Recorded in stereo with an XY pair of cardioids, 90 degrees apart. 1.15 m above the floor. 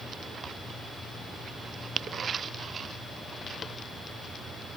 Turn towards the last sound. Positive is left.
No sound to turn to.